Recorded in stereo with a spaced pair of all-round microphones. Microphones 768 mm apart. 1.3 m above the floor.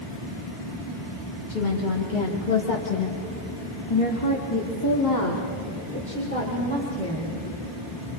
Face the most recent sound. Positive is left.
turn(degrees=5)  # may be behind; listen again after turning